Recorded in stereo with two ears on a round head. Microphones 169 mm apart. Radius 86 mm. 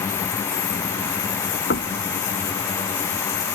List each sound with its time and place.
1.7 s knocking: 55° left (ahead or behind)